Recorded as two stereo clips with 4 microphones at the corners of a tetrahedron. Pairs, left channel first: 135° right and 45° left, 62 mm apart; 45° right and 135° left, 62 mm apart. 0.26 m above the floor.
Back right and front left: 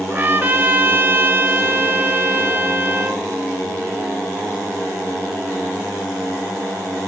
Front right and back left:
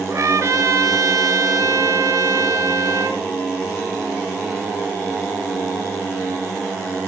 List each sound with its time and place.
0.1 s a trumpet: 105° left, 1.3 m